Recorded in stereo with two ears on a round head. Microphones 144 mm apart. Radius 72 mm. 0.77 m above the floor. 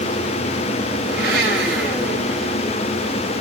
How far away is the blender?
About 6 m.